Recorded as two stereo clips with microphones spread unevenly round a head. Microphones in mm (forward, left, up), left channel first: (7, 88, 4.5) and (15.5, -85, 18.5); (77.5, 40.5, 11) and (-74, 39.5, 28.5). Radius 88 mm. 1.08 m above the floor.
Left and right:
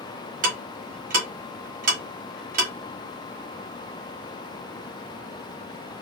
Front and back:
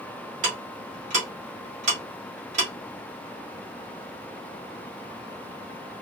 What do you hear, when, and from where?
0.4 s ticking: 130° right, 1.1 m